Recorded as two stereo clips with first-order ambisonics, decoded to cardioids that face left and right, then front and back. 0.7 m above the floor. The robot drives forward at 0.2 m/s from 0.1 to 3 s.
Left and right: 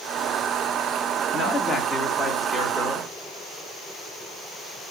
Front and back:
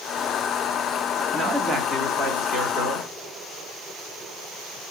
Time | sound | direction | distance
1.3 | a man speaking | 135° left | 0.9 m